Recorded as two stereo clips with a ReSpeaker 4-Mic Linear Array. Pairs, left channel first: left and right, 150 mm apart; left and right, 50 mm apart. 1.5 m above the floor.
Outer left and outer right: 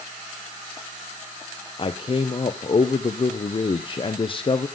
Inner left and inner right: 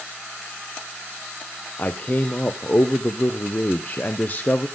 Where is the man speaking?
35° left (ahead or behind), 0.6 m.